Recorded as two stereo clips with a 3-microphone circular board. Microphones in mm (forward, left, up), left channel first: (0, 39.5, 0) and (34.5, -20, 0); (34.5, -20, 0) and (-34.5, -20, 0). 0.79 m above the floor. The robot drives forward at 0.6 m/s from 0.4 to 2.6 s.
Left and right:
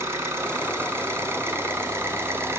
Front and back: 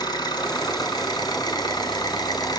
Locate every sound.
0.0 s an engine running: 5° right, 4.5 m